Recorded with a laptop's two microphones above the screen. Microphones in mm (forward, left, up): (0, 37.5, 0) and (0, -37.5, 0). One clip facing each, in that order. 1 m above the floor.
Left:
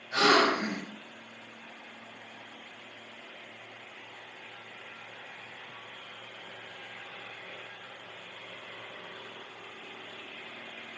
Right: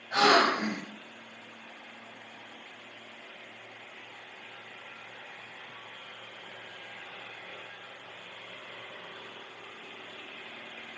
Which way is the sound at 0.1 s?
45° right (ahead or behind).